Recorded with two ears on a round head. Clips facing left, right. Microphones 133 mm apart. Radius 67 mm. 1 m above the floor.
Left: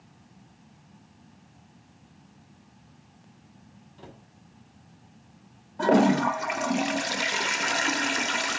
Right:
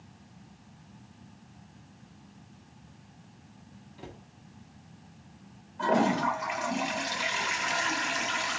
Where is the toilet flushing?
55° left (ahead or behind), 0.6 m.